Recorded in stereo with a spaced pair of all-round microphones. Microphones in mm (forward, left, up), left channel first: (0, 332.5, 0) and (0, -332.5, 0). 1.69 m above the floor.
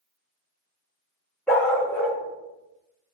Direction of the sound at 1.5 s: Centre (ahead or behind).